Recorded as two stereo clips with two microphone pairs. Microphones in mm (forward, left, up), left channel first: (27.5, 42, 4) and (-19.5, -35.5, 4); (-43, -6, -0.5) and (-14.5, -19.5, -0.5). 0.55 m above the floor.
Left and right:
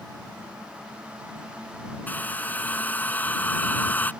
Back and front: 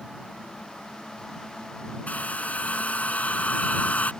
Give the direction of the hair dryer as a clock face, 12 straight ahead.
8 o'clock.